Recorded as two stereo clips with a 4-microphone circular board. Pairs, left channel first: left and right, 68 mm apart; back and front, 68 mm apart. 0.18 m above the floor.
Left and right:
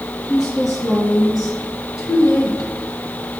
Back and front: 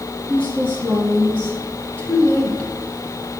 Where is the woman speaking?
115° left, 3.5 m; by 2.7 s 120° left, 2.5 m.